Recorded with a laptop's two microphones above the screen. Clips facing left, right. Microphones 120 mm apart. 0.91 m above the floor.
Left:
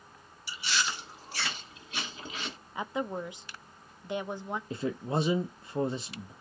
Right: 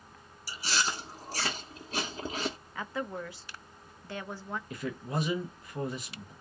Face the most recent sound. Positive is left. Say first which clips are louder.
# left 4 dB
turn(degrees=25)  # may be behind; listen again after turning